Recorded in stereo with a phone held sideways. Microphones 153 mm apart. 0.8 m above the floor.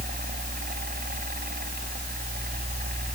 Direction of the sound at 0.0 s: 75° right (ahead or behind).